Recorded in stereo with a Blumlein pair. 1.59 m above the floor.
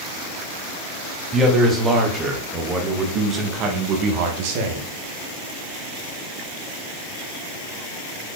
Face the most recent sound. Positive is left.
turn(degrees=-55)